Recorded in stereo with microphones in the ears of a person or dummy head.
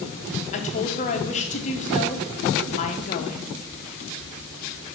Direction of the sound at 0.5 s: 35° left (ahead or behind).